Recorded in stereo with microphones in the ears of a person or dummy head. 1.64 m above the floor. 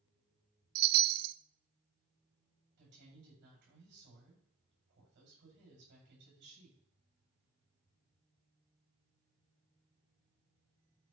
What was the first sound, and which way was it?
A chime, 55° right (ahead or behind).